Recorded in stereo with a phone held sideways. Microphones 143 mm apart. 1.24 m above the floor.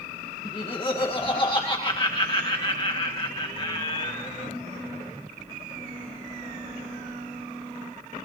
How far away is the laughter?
About 2.0 m.